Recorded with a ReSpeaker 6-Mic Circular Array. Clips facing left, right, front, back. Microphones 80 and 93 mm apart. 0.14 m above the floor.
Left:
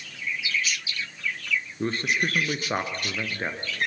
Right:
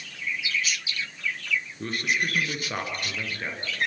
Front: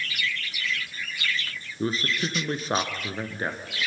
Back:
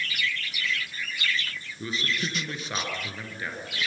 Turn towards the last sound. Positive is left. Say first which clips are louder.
# left 3 dB, front 4 dB
turn(degrees=40)